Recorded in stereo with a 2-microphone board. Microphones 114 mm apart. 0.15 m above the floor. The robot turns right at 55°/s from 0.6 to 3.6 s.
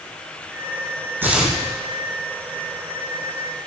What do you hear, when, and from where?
1.2 s tearing paper: 20° right (ahead or behind), 2.5 m; by 1.6 s centre (ahead or behind), 2.5 m